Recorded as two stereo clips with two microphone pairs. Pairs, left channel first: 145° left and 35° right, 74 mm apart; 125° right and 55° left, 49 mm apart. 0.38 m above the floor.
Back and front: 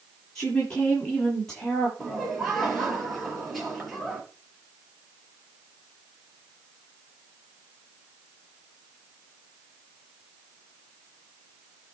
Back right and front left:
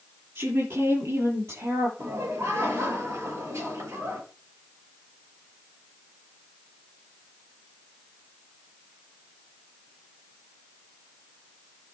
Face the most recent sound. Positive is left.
turn(degrees=60)